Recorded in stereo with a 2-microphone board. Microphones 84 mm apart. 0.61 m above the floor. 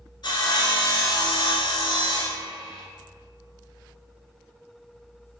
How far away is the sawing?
About 1.3 m.